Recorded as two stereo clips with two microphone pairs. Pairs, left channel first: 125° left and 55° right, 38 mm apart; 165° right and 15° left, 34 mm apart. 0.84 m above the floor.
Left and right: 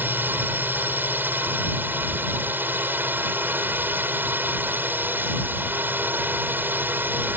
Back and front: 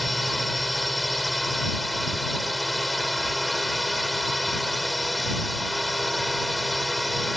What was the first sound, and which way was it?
A drone, 75° right.